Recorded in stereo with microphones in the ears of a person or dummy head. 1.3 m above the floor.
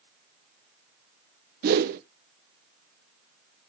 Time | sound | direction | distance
1.6 | a whoosh | 50° right (ahead or behind) | 0.7 m